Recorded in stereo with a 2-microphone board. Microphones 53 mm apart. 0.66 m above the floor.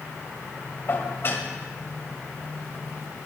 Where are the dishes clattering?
45° left (ahead or behind), 2 m.